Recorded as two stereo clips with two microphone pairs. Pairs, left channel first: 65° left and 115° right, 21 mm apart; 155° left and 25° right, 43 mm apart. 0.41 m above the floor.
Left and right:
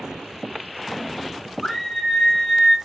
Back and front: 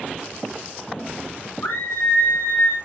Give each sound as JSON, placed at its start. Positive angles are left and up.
{"t": 1.6, "sound": "a scream", "azimuth_deg": 135, "distance_m": 4.0}